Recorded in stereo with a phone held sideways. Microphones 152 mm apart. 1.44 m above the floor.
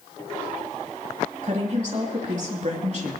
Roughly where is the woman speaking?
Right.